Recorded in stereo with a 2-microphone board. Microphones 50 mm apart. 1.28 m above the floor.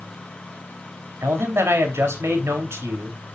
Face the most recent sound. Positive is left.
turn(degrees=-65)  # may be behind; listen again after turning